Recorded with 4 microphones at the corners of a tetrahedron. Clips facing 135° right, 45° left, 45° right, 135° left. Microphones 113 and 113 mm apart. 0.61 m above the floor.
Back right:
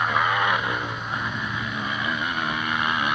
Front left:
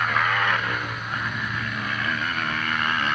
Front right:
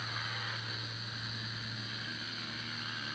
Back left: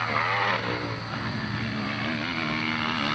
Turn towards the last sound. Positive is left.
turn(degrees=150)